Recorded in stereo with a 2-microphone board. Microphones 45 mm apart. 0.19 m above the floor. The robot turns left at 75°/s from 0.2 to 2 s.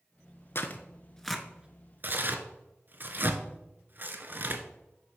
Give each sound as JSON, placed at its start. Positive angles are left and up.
{"t": 0.6, "sound": "tearing paper", "side_deg": 55, "distance_m": 0.7}